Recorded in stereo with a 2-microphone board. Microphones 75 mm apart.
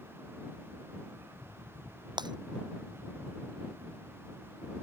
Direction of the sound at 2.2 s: 70° right (ahead or behind).